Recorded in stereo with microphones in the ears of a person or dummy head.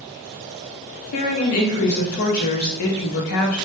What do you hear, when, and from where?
1.1 s a woman speaking: 50° left (ahead or behind), 0.6 m